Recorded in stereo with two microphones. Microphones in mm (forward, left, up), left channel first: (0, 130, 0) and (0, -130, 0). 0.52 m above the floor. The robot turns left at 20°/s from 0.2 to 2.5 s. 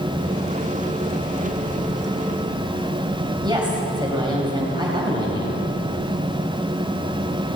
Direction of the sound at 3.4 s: 15° right (ahead or behind).